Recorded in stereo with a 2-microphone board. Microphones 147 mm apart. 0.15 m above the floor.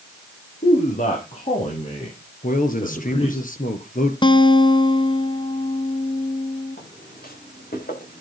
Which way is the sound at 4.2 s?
30° left (ahead or behind).